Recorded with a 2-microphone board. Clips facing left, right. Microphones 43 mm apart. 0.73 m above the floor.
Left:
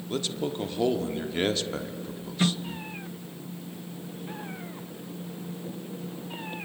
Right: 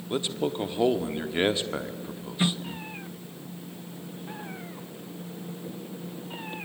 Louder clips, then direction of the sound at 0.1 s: Right 2 dB; 20° right (ahead or behind).